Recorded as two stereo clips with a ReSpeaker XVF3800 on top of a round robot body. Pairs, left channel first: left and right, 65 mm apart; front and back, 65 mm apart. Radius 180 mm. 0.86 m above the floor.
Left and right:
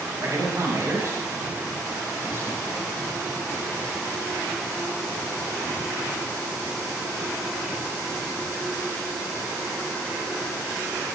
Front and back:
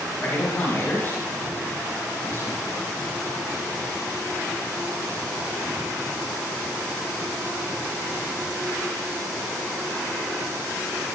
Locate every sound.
0.2 s a man speaking: 60° right, 5 m; by 3.1 s 45° right, 7 m